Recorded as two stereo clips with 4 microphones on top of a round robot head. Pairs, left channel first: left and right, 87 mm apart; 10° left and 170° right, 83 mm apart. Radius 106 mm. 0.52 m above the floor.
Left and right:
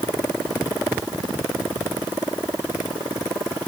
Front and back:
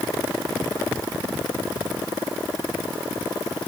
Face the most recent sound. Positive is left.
No sound to turn to.